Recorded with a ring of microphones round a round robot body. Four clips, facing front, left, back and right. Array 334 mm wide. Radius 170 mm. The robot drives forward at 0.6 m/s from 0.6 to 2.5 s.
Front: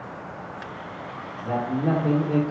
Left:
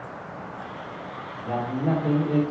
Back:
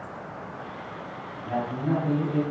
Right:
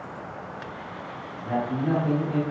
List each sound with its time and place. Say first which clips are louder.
1.4 s a man speaking: even, front 3 dB; 20° left, 2 m; by 2.4 s 25° left, 1.7 m